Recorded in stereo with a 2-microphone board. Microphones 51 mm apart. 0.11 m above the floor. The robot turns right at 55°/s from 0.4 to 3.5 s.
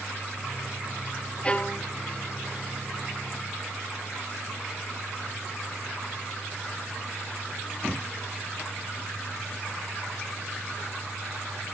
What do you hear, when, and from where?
1.4 s a violin: 20° left (ahead or behind), 0.7 m; by 1.9 s 40° left (ahead or behind), 0.7 m